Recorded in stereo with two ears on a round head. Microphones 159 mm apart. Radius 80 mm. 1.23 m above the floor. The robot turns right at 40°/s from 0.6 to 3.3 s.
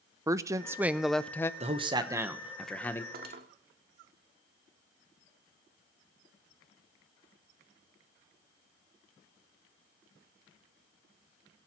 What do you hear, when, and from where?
0.3 s a woman speaking: 20° right, 0.6 m; by 1.5 s 15° left, 0.6 m
1.6 s a man speaking: 40° right, 1.2 m; by 3.0 s 15° left, 1.2 m
3.1 s cutlery clinking: 55° right (ahead or behind), 1.6 m; by 3.5 s 60° right (ahead or behind), 1.6 m